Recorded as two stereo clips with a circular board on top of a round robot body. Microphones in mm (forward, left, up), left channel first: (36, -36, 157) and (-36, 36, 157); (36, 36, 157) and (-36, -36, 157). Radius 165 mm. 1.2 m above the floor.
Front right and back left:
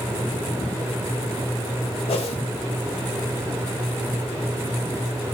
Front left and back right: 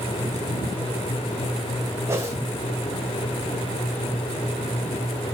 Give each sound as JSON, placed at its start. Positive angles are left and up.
{"t": 2.1, "sound": "a whoosh", "azimuth_deg": -70, "distance_m": 3.5}